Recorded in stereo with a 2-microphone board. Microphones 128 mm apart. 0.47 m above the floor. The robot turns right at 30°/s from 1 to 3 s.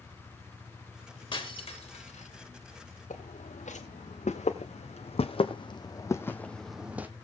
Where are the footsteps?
75° left (ahead or behind), 2.5 m; by 7.1 s 15° right (ahead or behind), 1.1 m.